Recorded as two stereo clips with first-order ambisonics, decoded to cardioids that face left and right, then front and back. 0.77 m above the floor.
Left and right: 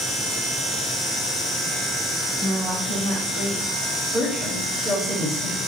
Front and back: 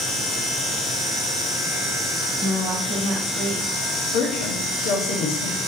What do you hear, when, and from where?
2.4 s a woman speaking: 155° right, 1.5 m; by 3.6 s 120° right, 1.5 m
4.1 s a woman speaking: 5° right, 0.9 m